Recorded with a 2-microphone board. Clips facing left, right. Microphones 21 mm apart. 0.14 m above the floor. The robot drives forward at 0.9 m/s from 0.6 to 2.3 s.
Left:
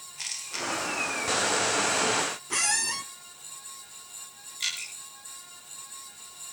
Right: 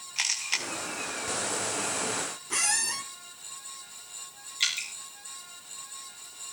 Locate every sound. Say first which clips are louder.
0.2 s a camera shutter: right 5 dB; 80° right, 3 m
2.5 s a squeak: even; 10° left (ahead or behind), 0.6 m
4.6 s dripping: right 3 dB; 30° right (ahead or behind), 9.5 m